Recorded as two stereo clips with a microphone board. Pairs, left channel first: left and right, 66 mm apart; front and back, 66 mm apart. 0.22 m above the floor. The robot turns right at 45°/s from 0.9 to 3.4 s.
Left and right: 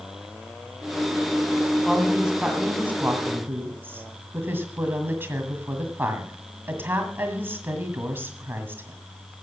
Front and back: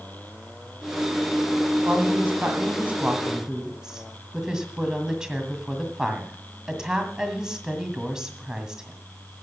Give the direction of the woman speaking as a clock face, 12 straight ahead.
6 o'clock.